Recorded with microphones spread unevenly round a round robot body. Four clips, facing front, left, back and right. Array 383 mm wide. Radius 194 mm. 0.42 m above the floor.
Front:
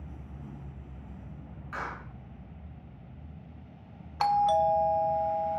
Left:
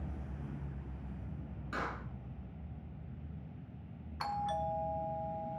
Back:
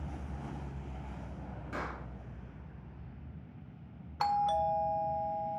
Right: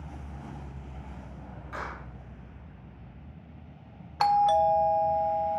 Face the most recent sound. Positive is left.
turn(degrees=-80)